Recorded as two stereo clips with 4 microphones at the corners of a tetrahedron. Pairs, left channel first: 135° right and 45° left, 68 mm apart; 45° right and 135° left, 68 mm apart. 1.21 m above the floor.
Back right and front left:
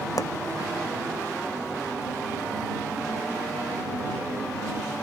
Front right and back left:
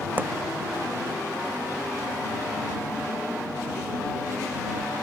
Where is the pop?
160° right.